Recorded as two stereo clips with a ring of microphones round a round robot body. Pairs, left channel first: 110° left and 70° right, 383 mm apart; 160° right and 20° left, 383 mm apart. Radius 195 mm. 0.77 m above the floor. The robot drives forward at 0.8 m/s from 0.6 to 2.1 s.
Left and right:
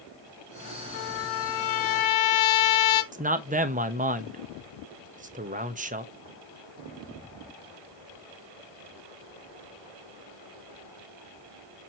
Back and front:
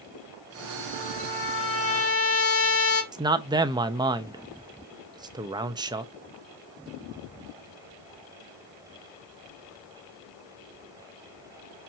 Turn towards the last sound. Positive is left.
turn(degrees=-40)